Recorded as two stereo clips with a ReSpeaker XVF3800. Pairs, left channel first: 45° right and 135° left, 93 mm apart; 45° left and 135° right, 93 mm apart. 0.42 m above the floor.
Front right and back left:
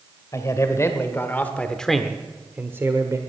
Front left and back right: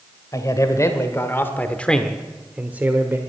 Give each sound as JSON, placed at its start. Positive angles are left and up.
{"t": 0.3, "sound": "a man speaking", "azimuth_deg": 0, "distance_m": 1.6}